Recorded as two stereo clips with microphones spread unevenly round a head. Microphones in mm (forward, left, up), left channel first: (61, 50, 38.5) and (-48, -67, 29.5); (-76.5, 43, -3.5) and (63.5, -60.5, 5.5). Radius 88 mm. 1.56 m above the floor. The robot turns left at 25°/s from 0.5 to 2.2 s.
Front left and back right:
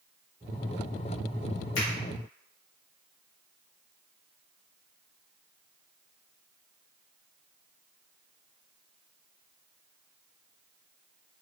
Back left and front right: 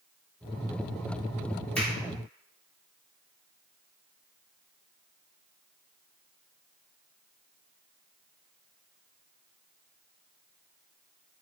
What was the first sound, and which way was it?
A finger snap, 60° left.